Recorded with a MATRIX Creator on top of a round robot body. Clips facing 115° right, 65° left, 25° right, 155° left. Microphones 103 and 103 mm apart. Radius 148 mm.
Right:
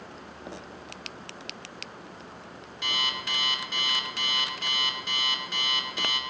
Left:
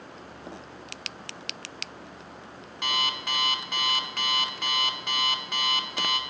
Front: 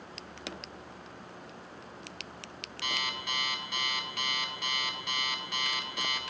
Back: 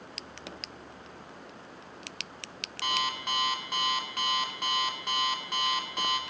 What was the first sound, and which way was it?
An alarm clock, 110° left.